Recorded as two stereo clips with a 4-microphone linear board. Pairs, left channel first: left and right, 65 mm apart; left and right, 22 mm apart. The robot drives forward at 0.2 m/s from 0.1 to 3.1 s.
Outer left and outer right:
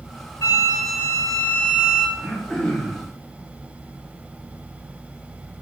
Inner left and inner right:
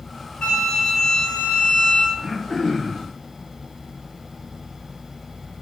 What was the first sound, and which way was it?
A flute, 50° left (ahead or behind).